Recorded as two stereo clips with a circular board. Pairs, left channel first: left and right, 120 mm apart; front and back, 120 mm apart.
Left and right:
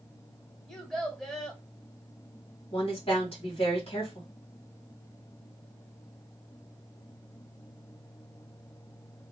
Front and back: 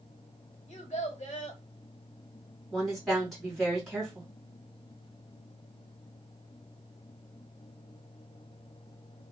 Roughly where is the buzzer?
I don't hear a buzzer.